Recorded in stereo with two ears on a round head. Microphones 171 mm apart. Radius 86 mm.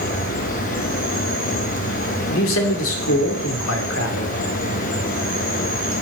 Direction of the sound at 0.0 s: 45° left (ahead or behind).